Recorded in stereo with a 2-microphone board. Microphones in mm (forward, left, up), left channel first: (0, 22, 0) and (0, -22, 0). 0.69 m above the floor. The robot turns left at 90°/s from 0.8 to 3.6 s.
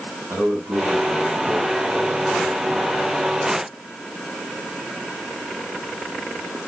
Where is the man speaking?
100° right, 6 m; by 3.3 s 35° left, 6 m.